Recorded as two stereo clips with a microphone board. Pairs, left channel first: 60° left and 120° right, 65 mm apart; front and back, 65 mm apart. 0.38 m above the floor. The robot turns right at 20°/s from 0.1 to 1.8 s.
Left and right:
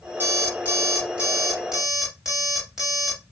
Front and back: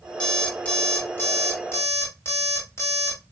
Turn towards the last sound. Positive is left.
turn(degrees=-40)